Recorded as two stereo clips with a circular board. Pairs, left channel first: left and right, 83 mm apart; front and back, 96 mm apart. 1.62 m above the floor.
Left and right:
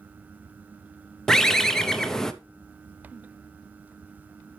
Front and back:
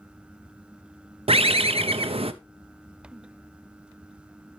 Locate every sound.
1.3 s a bird: 175° left, 0.5 m